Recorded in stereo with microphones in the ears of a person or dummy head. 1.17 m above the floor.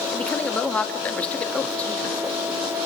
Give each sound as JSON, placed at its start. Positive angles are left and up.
{"t": 0.1, "sound": "a woman speaking", "side_deg": 10, "distance_m": 2.0}